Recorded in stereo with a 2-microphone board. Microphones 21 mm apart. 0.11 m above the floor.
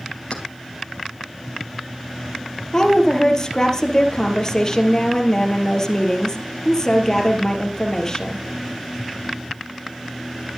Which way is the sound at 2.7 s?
25° left (ahead or behind).